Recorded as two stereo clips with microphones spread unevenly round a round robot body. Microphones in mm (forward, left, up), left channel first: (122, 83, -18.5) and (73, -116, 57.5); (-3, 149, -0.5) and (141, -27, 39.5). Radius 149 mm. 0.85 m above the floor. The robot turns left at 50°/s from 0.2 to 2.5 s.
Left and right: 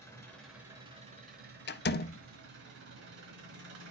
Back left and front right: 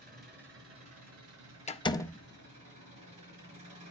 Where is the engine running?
5° right, 4.5 m; by 3.9 s 120° right, 4.5 m.